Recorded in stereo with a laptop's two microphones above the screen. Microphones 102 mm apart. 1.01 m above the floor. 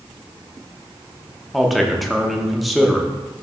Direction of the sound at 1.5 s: Centre (ahead or behind).